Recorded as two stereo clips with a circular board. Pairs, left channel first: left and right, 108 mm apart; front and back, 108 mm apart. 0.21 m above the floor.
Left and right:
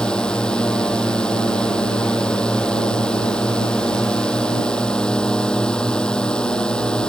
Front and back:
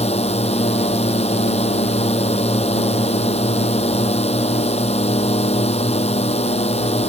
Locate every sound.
0.0 s a drone: 10° left